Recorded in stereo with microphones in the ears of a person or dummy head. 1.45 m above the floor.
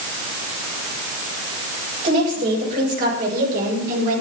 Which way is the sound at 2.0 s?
50° right (ahead or behind).